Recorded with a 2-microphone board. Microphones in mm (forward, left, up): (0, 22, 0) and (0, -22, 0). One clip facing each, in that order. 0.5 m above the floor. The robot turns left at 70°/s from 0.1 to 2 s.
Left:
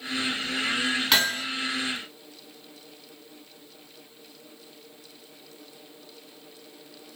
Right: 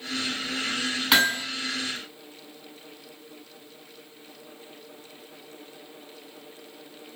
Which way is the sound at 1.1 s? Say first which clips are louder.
Right 5 dB; 10° right (ahead or behind).